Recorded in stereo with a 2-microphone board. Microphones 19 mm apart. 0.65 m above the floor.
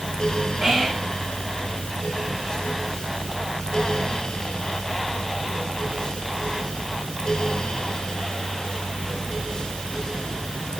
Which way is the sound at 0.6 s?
20° right (ahead or behind).